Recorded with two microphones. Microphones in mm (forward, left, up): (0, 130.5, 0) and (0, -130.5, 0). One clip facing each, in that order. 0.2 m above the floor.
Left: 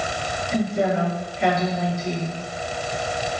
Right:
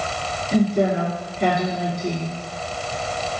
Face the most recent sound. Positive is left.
turn(degrees=-40)  # may be behind; listen again after turning